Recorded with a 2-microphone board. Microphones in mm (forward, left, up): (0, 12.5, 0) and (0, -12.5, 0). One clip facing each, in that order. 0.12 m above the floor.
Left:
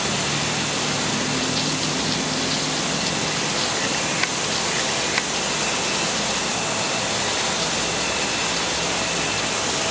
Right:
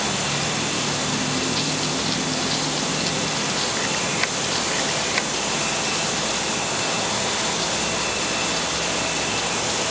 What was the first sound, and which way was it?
Only background noise.